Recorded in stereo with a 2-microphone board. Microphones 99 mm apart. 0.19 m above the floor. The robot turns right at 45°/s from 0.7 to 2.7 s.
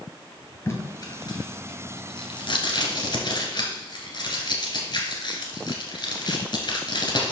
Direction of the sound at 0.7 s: 25° left (ahead or behind).